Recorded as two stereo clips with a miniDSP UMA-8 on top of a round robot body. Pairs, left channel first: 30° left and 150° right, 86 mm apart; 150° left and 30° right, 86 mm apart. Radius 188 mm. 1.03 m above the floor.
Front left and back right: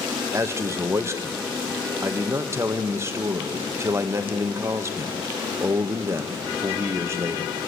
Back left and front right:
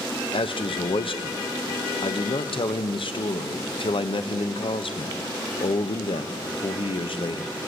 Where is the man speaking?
150° left, 1.3 m.